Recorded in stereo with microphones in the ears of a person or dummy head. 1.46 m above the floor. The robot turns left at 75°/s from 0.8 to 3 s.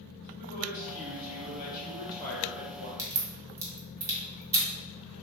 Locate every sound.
0.4 s a woman speaking: 125° left, 1.0 m; by 3.1 s 40° right, 1.0 m
3.0 s a crack: 10° right (ahead or behind), 1.6 m; by 4.7 s 15° right (ahead or behind), 1.6 m